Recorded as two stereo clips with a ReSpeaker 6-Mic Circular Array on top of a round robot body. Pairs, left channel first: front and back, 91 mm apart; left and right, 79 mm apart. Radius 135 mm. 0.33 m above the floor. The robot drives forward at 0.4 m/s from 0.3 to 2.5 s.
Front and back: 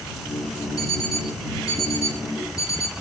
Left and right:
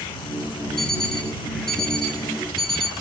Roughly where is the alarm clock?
Behind.